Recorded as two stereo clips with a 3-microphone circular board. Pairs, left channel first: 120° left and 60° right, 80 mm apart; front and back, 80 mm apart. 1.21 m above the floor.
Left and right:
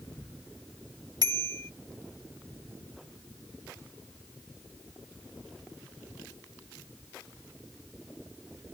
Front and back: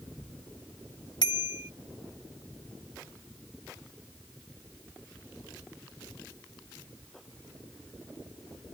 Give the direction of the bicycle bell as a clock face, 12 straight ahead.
1 o'clock.